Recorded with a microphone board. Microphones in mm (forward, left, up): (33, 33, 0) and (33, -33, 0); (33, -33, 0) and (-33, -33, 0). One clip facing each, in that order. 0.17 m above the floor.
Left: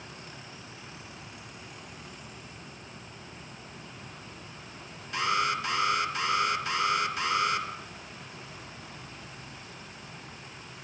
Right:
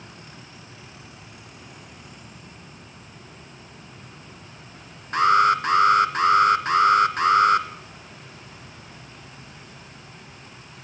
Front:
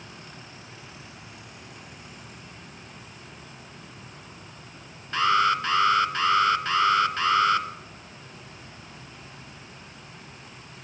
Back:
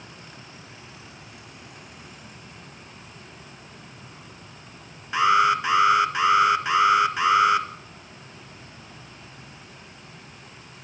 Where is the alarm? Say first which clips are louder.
Right 11 dB, back 3 dB; 105° right, 1.9 m.